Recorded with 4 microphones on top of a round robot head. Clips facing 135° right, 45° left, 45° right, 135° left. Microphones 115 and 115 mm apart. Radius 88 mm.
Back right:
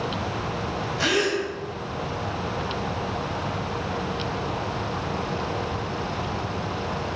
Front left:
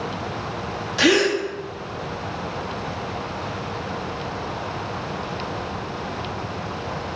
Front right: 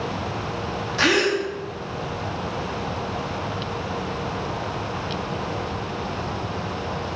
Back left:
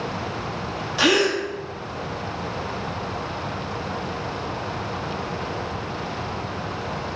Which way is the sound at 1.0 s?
60° left.